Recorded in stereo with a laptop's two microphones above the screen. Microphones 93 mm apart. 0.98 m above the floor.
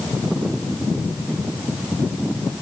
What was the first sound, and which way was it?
Only background noise.